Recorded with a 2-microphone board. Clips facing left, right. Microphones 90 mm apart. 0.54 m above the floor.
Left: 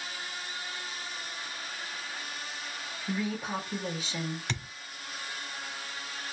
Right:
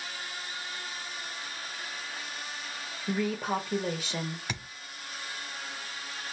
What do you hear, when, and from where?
3.1 s a woman speaking: 60° right (ahead or behind), 1.8 m
4.5 s a thud: 10° right (ahead or behind), 1.0 m